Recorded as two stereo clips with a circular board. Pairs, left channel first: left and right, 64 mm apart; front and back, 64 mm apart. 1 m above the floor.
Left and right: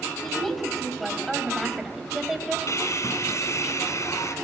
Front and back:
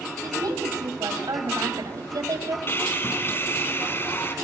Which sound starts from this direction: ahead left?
Sawing, at 2.7 s.